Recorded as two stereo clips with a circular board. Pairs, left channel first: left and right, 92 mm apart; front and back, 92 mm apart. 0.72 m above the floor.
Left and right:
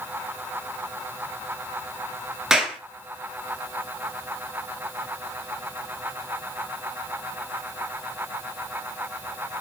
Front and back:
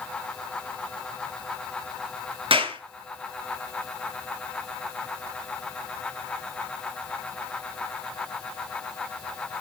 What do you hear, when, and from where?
2.5 s a clap: 175° right, 7.5 m